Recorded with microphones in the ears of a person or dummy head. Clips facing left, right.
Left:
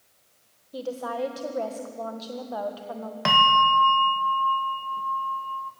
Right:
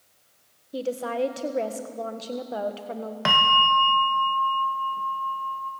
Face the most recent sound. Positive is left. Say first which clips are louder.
# left 3 dB
turn(degrees=-5)  # may be behind; listen again after turning